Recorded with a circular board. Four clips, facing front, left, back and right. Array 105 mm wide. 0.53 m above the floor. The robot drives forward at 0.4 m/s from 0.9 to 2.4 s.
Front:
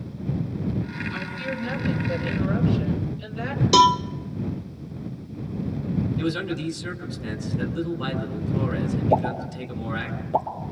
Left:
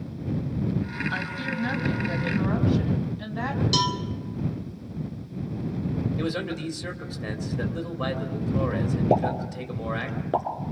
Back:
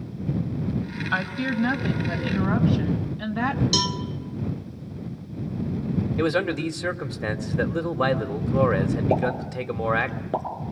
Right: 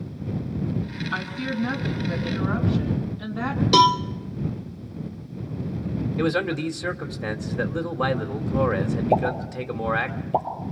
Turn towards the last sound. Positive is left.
turn(degrees=115)